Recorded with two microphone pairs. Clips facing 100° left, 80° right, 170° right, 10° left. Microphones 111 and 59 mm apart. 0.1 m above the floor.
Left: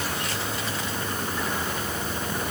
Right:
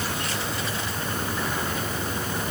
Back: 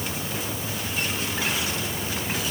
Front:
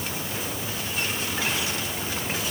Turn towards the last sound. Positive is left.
No sound to turn to.